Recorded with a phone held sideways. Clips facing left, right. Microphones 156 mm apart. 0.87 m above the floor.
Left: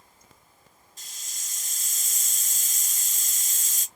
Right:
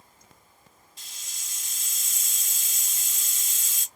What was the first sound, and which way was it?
A hiss, 50° left (ahead or behind).